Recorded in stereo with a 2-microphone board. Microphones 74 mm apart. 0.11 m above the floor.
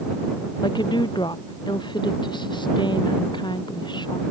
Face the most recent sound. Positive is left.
turn(degrees=75)  # may be behind; listen again after turning